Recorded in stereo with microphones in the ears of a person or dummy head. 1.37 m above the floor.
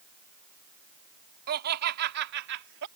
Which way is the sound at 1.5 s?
50° right (ahead or behind).